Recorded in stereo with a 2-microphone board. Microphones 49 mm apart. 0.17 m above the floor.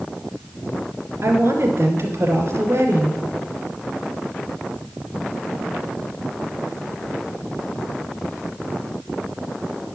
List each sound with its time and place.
1.2 s a woman speaking: 60° right (ahead or behind), 2 m